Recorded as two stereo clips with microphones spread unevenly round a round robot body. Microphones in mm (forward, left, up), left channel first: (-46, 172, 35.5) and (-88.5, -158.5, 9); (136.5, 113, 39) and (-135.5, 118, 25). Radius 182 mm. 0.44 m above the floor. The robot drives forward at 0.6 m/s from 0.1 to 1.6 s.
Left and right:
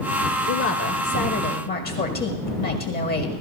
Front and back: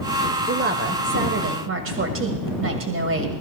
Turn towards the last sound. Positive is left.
turn(degrees=145)